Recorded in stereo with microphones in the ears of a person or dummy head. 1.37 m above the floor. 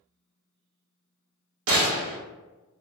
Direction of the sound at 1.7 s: 75° right (ahead or behind).